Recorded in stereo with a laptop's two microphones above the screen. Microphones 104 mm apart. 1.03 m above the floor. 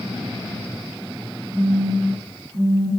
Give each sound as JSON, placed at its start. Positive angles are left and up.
{"t": 1.5, "sound": "a phone buzzing", "side_deg": -55, "distance_m": 3.0}